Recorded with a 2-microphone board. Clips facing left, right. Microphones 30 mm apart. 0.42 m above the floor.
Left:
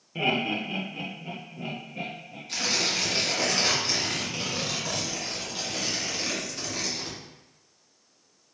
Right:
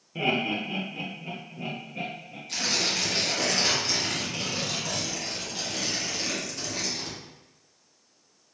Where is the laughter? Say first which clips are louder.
Even; 15° left (ahead or behind), 1.0 m; by 2.4 s 5° right (ahead or behind), 1.9 m.